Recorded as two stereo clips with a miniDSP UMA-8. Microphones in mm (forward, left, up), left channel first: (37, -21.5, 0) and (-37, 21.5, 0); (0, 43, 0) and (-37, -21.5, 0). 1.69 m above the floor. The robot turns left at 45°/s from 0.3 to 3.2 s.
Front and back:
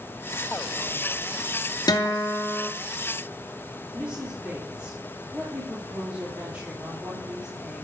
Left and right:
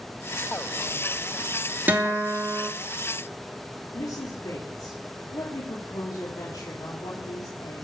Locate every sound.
1.9 s a guitar: 60° right, 3 m; by 2.7 s 95° right, 3 m
3.9 s a woman speaking: 75° left, 4 m